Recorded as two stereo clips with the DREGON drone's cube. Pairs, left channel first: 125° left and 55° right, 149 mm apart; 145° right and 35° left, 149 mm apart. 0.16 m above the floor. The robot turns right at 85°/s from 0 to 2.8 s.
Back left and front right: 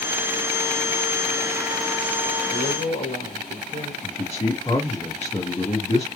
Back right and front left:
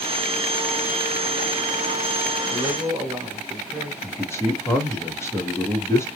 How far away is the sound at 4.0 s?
About 2.5 m.